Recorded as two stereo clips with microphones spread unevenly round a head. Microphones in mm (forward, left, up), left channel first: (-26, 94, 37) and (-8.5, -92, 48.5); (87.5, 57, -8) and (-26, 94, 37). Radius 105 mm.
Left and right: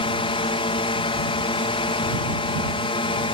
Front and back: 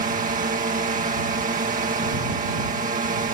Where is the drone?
155° left.